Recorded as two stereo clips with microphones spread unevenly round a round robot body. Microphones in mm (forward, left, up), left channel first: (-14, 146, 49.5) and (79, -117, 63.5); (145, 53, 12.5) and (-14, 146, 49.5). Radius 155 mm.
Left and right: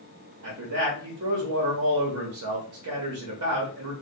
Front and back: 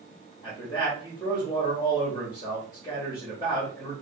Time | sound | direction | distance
0.4 | a man speaking | 90° right | 0.8 m